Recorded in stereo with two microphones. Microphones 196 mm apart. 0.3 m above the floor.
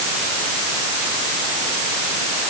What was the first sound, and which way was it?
Only background noise.